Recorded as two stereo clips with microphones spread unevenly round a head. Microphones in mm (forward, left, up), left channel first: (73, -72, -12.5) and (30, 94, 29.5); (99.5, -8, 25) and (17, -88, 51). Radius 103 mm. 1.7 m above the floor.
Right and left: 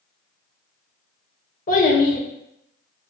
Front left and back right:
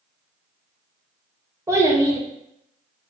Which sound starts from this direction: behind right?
A child speaking, at 1.7 s.